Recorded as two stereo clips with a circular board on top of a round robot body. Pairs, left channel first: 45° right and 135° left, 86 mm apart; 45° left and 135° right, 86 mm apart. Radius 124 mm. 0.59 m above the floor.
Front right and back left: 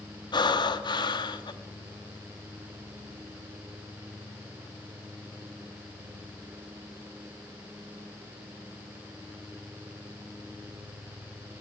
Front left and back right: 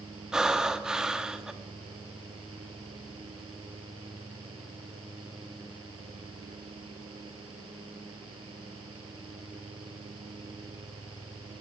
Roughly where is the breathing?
Ahead right.